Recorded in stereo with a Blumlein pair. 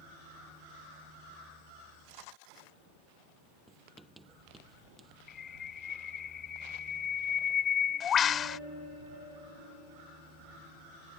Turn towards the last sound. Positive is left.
turn(degrees=25)